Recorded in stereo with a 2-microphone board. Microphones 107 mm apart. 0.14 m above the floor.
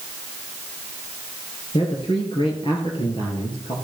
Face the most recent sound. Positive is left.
turn(degrees=55)  # may be behind; listen again after turning